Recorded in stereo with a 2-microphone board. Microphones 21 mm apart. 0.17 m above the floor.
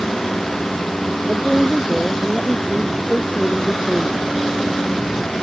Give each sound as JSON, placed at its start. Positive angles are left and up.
{"t": 1.3, "sound": "a woman speaking", "side_deg": -15}